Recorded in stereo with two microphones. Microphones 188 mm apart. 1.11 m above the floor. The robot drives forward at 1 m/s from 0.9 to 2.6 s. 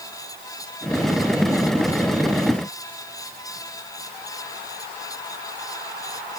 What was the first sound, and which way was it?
Only background noise.